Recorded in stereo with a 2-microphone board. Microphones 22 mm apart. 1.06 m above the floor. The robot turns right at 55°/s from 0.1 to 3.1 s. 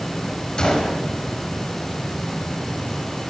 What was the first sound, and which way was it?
A gunshot, 35° left (ahead or behind).